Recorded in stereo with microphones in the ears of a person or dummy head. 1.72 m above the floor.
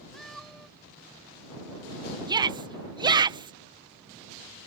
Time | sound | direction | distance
0.1 | a cat meowing | centre (ahead or behind) | ?
2.3 | a shout | 25° right (ahead or behind) | ?